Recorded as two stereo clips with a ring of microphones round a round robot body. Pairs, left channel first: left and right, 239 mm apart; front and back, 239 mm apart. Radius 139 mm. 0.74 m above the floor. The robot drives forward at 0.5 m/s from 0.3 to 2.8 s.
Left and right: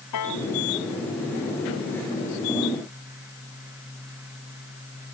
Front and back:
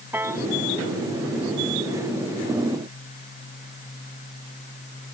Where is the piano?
100° left.